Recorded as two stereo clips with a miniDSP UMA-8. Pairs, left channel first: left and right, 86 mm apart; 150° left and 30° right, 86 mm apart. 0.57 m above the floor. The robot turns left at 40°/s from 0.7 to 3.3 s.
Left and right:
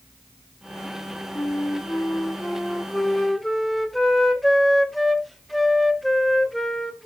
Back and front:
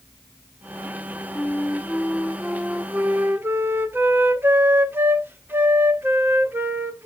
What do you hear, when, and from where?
1.4 s a flute: 80° left, 1.0 m; by 7.1 s straight ahead, 1.0 m